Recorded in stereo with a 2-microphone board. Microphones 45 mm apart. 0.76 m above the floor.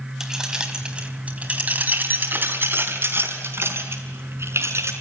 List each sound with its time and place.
0.2 s keys jangling: 10° right (ahead or behind), 3.5 m; by 4.9 s 75° right (ahead or behind), 6 m